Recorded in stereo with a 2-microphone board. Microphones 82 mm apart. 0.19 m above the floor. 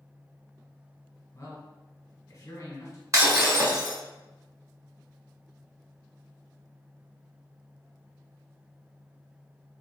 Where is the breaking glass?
45° right (ahead or behind), 0.9 m.